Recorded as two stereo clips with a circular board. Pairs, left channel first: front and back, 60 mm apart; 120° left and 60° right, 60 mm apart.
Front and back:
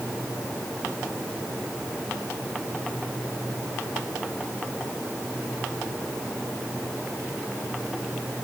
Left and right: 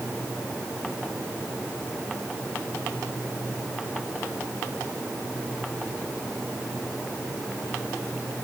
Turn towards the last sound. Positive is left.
No sound to turn to.